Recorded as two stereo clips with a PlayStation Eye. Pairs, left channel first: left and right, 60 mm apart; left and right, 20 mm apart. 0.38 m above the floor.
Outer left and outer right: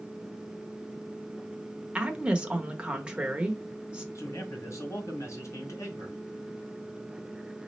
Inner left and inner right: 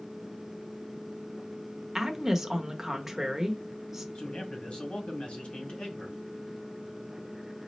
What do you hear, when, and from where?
1.9 s a woman speaking: 15° right (ahead or behind), 0.8 m
4.2 s a man speaking: 60° left (ahead or behind), 1.9 m